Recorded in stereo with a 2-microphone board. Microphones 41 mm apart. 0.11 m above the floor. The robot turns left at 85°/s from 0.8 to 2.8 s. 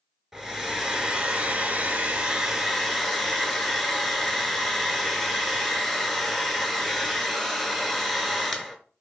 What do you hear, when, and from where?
0.3 s a hair dryer: 20° right, 0.7 m; by 8.8 s 170° left, 0.7 m